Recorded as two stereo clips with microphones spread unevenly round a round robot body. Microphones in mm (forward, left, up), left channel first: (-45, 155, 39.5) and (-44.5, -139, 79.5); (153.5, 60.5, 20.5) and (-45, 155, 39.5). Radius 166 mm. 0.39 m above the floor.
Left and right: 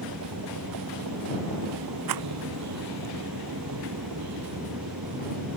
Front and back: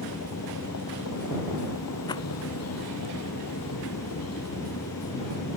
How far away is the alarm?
No alarm in this recording.